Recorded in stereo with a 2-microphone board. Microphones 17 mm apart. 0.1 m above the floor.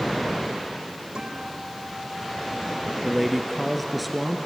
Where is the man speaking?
Centre (ahead or behind), 1.8 m.